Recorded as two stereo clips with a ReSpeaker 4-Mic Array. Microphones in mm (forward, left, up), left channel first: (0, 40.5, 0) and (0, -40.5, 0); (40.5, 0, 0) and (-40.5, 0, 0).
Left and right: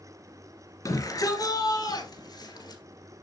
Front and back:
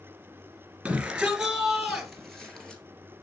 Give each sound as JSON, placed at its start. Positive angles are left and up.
{"t": 0.8, "sound": "a shout", "azimuth_deg": 110, "distance_m": 2.0}